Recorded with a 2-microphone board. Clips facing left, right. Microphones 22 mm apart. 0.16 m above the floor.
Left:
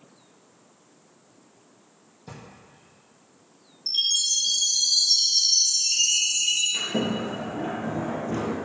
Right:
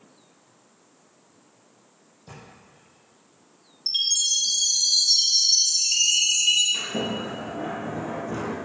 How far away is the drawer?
About 2 m.